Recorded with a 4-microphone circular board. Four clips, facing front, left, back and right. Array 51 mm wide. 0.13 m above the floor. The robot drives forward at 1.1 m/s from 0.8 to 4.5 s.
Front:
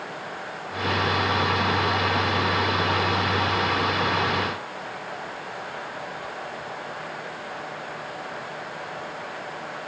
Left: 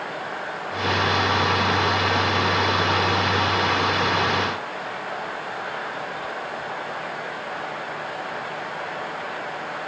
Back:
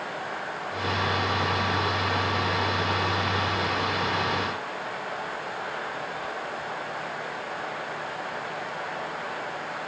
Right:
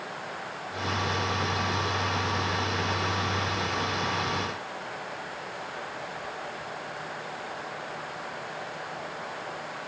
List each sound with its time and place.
Only background noise.